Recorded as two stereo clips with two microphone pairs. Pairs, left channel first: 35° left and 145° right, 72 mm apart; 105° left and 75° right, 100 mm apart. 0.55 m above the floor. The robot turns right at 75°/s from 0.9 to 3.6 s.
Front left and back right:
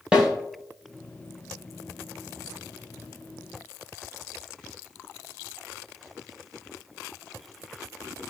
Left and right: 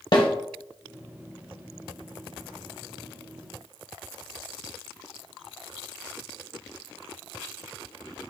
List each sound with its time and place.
0.1 s a snare drum: 140° left, 1.5 m